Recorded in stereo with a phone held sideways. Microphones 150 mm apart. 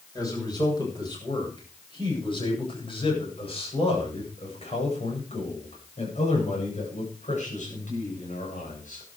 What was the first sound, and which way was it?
A man speaking, 25° left (ahead or behind).